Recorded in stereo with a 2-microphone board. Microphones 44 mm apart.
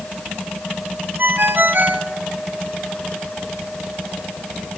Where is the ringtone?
45° right (ahead or behind), 2.0 m.